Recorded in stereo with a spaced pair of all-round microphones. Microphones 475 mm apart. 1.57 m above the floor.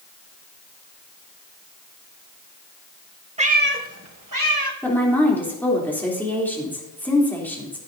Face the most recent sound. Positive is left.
turn(degrees=5)  # may be behind; listen again after turning